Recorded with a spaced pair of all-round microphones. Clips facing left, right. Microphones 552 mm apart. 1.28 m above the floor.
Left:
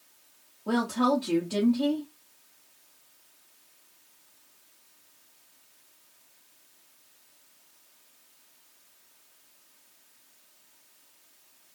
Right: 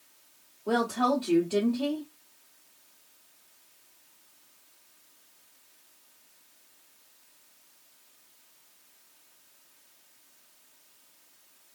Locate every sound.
0.7 s a woman speaking: 45° left (ahead or behind), 0.9 m